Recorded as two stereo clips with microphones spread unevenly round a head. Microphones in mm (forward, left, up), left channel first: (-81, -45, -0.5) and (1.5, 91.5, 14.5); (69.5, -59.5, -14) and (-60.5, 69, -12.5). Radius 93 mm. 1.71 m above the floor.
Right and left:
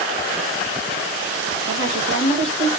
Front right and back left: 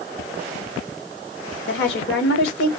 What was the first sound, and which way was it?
A woman speaking, 15° right.